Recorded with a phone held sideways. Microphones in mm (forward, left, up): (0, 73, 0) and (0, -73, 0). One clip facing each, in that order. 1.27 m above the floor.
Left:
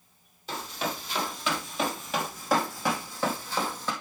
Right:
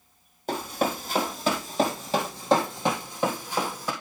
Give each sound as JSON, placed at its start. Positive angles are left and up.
{"t": 0.5, "sound": "running footsteps", "side_deg": -50, "distance_m": 2.0}